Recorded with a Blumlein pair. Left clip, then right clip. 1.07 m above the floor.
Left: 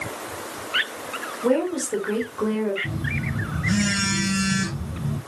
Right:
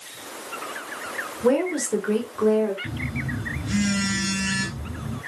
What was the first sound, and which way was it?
A woman speaking, 10° right.